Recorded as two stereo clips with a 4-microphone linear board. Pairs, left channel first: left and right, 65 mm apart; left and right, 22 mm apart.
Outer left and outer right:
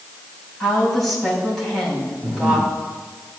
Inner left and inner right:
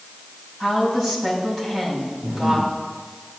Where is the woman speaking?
5° left (ahead or behind), 5 m.